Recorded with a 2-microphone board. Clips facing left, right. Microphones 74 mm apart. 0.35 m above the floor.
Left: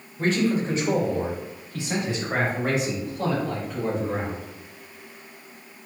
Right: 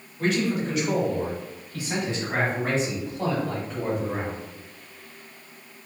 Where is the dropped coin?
No dropped coin in this recording.